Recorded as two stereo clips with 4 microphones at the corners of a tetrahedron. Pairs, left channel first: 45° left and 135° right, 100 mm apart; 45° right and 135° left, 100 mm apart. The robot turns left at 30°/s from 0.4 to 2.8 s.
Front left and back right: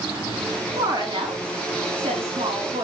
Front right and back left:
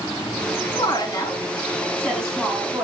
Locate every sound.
0.8 s a woman speaking: 85° right, 3.5 m; by 2.8 s 145° right, 3.5 m